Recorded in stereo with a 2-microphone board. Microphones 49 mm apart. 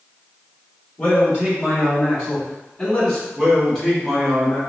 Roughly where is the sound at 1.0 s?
Left.